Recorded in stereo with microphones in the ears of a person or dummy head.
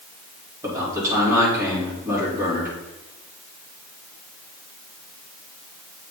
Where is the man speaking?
20° right (ahead or behind), 4 m.